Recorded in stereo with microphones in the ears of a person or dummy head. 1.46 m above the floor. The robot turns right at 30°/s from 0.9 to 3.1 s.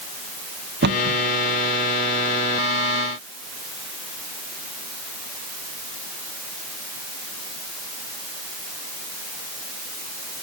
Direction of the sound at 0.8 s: 55° right (ahead or behind).